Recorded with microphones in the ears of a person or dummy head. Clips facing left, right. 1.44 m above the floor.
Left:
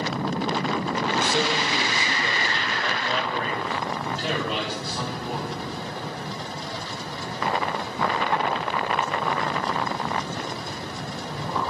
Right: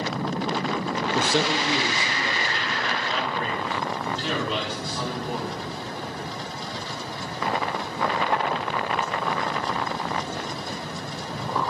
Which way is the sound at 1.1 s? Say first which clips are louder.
Right 3 dB; 60° right (ahead or behind).